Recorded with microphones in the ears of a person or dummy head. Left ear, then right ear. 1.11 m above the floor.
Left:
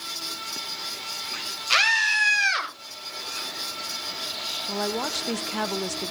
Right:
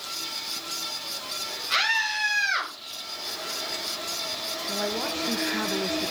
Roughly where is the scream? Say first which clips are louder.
Left 4 dB; left.